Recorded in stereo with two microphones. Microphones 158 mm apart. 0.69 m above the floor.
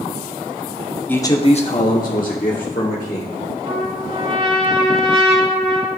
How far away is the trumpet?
About 1.7 m.